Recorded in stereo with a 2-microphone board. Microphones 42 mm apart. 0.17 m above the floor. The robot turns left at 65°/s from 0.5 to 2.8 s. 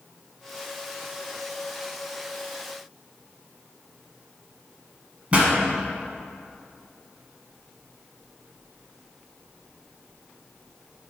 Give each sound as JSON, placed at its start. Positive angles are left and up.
{"t": 5.3, "sound": "a pop", "side_deg": -30, "distance_m": 1.2}